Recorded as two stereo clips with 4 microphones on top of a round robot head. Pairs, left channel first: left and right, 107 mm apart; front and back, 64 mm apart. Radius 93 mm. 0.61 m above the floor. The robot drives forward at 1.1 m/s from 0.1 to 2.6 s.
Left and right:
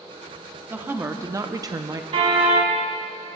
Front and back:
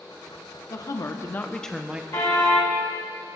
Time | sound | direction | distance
0.7 | a woman speaking | 20° right | 1.4 m
2.1 | a car horn | 55° right | 3 m